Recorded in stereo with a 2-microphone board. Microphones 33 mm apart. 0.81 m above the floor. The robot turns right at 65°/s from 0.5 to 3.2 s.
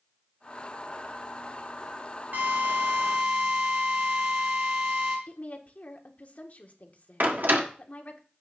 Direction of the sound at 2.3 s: 115° right.